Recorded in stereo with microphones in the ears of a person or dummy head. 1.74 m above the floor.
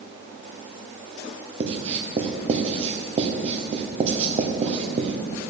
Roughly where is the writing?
Right.